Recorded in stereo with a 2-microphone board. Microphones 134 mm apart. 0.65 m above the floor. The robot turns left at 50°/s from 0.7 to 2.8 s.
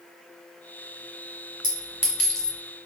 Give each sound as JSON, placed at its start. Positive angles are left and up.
{"t": 1.6, "sound": "a clink", "side_deg": -30, "distance_m": 1.4}